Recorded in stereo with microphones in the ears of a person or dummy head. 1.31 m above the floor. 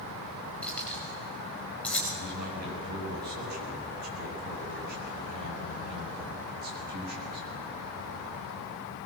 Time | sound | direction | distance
0.6 | keys jangling | 10° left (ahead or behind) | 5.5 m
2.1 | a man speaking | 50° right (ahead or behind) | 7.5 m